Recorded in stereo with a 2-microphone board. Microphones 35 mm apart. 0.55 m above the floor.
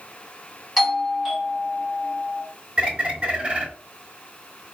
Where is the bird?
30° right (ahead or behind), 1.0 m.